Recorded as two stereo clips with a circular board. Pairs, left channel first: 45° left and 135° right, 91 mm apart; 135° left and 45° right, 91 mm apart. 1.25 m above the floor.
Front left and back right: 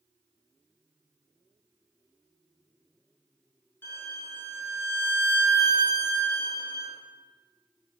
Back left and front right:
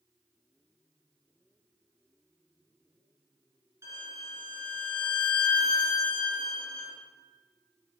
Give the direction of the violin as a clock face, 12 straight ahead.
12 o'clock.